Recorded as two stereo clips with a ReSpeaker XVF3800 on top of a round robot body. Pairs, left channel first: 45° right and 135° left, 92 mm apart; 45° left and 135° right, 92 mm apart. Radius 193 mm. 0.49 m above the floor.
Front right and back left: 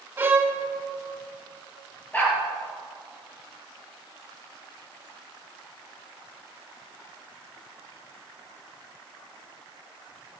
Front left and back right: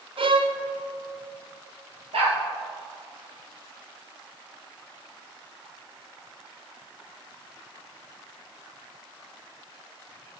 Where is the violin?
155° right, 1.4 m.